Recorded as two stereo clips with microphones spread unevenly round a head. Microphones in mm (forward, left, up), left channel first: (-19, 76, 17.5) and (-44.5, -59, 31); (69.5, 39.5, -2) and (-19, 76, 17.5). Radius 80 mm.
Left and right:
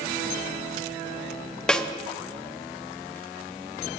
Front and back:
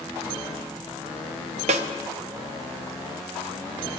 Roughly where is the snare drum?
Behind.